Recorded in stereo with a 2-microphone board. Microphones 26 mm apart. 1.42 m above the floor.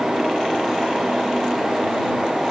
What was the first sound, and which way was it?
Only background noise.